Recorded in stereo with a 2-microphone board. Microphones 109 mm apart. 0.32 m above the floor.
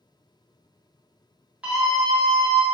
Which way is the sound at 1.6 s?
10° right (ahead or behind).